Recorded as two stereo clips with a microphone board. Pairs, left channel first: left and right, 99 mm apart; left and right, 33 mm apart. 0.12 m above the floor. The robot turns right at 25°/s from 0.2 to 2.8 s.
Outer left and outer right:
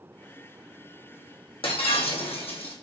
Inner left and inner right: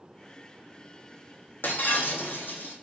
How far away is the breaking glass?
About 0.8 m.